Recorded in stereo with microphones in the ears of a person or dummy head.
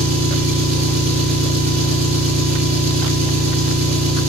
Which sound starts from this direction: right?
An engine running, at 0.0 s.